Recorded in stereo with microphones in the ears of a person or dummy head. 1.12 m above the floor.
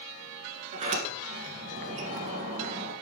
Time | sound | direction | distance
0.7 | a sliding door | 45° right (ahead or behind) | 2 m